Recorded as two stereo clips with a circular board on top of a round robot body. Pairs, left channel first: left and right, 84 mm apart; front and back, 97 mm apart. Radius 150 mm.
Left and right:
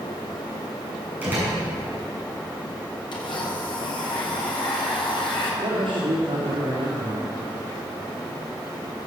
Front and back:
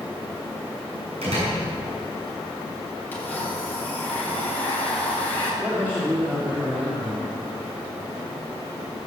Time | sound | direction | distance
1.2 | a door slam | 160° right | 6.5 m
3.1 | a blender | 75° left | 4 m
5.6 | a man speaking | 100° right | 3 m